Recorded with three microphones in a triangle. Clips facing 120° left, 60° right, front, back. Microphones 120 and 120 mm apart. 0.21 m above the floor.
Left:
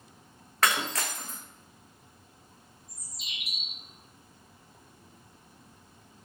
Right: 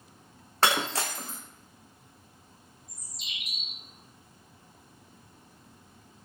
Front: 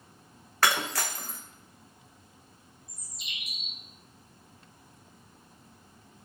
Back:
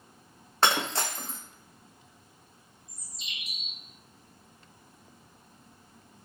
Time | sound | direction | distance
0.6 | breaking glass | 115° right | 0.5 m
2.9 | a bird | 160° right | 1.4 m